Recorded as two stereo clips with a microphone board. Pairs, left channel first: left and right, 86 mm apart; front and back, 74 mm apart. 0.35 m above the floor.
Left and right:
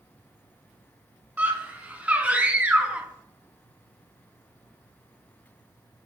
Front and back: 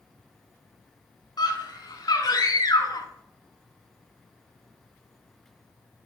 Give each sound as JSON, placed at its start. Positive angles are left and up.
{"t": 1.4, "sound": "a scream", "azimuth_deg": -20, "distance_m": 4.5}